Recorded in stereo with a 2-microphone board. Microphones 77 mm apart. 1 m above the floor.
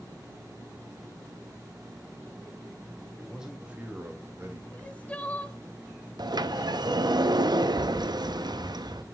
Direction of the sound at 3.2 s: 5° right (ahead or behind).